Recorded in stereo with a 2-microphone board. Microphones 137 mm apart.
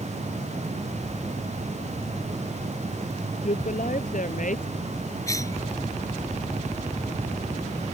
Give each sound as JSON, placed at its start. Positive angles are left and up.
{"t": 3.4, "sound": "a woman speaking", "side_deg": 70}
{"t": 5.3, "sound": "a cough", "side_deg": 25}